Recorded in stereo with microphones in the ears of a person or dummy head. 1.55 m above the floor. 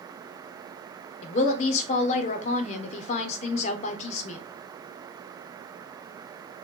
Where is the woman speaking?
45° left (ahead or behind), 0.7 m.